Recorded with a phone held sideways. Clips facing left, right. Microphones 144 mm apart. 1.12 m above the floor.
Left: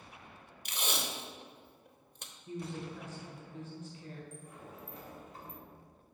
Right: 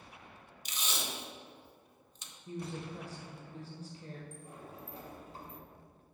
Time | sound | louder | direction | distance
0.7 | tape being pulled | left 3 dB | 55° left (ahead or behind) | 0.7 m
2.5 | a woman speaking | even | 35° right (ahead or behind) | 1.1 m
4.3 | a sliding door | right 1 dB | 35° right (ahead or behind) | 1.0 m